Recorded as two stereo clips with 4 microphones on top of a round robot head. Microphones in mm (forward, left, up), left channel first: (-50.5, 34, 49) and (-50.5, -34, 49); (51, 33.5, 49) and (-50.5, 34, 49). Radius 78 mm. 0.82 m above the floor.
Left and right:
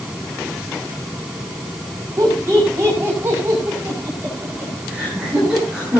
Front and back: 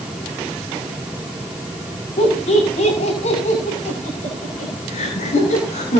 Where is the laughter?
25° right, 6.5 m; by 6.0 s 10° right, 8.5 m.